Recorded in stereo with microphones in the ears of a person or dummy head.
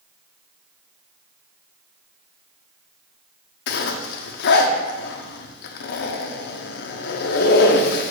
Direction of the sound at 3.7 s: 60° left (ahead or behind).